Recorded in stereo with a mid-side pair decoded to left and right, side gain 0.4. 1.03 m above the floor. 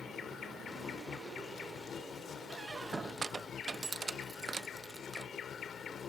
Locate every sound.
0.0 s an insect: 60° left
2.5 s a squeak: 35° right